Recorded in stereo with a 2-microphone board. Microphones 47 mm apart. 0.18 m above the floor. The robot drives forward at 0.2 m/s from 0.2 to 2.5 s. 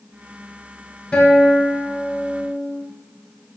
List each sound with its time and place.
1.1 s a guitar: 20° left (ahead or behind), 1.0 m; by 2.8 s 15° left (ahead or behind), 1.2 m